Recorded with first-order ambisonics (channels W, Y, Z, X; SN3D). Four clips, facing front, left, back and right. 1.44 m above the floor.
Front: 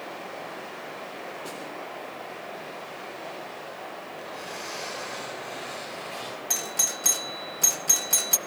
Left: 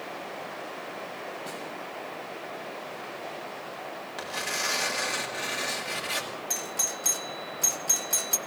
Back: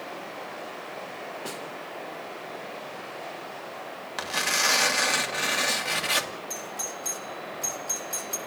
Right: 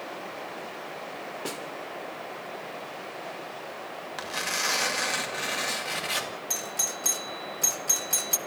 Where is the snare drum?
100° right, 3.5 m.